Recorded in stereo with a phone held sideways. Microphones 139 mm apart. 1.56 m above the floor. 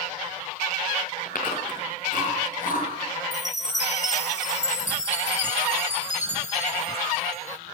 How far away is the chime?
About 1.9 m.